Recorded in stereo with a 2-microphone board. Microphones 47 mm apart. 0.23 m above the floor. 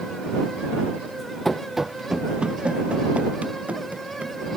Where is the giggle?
I don't hear a giggle.